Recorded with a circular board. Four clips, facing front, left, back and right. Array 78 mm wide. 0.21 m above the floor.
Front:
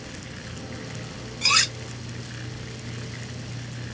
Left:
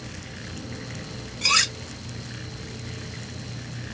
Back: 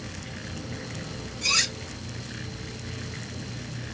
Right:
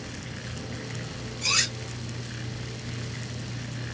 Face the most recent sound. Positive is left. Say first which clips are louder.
# left 6 dB, front 5 dB
turn(degrees=40)